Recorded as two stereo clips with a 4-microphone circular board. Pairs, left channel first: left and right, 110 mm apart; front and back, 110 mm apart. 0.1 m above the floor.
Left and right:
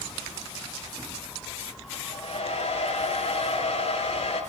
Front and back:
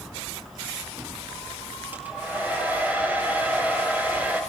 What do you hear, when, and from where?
1.9 s a hair dryer: 105° left, 6.5 m